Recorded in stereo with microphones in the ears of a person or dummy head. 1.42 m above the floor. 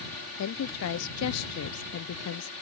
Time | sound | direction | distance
0.4 | a woman speaking | 75° left (ahead or behind) | ?